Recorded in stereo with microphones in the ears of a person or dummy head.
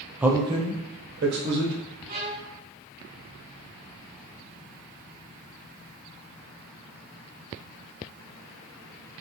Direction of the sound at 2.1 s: 25° right (ahead or behind).